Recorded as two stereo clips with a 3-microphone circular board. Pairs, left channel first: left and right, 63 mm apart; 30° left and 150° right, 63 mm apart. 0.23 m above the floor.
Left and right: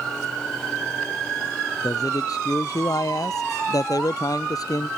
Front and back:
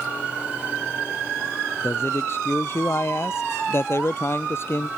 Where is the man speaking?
80° left.